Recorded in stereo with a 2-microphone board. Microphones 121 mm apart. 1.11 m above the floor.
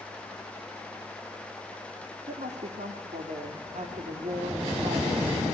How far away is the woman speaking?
About 3 m.